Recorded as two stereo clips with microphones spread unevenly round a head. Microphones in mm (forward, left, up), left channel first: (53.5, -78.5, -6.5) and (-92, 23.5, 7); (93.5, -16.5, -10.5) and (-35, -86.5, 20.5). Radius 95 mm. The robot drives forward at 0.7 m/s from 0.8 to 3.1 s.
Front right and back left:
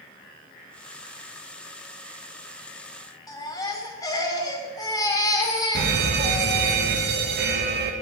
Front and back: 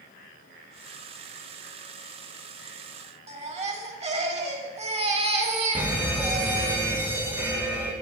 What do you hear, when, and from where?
3.3 s a baby crying: 105° right, 2.5 m
5.8 s an alarm: 120° left, 1.6 m